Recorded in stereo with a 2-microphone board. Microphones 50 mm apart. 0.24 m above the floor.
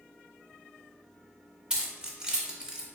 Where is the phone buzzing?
No phone buzzing in this recording.